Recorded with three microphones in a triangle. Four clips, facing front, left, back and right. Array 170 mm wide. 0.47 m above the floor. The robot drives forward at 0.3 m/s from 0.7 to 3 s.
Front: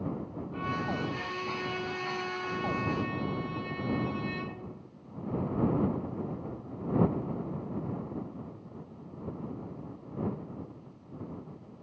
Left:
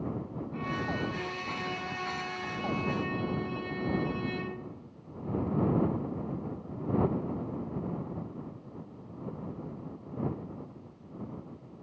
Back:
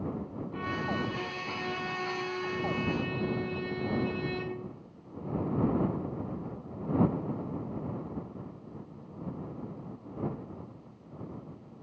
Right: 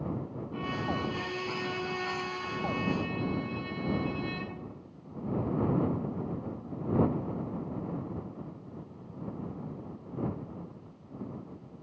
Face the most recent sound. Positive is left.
turn(degrees=-150)